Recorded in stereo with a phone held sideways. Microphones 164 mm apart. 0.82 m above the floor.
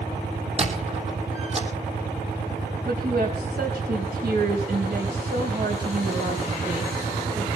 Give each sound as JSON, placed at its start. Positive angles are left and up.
{"t": 0.6, "sound": "a squeak", "side_deg": -40, "distance_m": 3.0}
{"t": 2.9, "sound": "a woman speaking", "side_deg": -65, "distance_m": 4.5}